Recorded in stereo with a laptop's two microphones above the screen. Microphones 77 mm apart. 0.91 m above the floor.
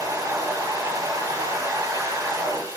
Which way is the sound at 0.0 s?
45° right (ahead or behind).